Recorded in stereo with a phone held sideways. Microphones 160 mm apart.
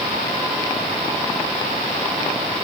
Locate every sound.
Only background noise.